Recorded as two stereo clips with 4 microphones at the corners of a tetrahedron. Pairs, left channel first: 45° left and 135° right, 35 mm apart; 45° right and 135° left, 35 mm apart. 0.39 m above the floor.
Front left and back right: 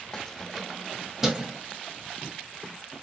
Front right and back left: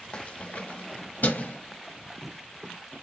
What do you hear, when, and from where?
0.1 s keys jangling: 20° right, 0.7 m; by 1.6 s 60° right, 1.6 m